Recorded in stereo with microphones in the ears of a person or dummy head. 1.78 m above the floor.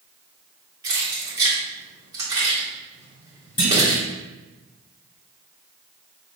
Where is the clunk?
15° left (ahead or behind), 1.6 m.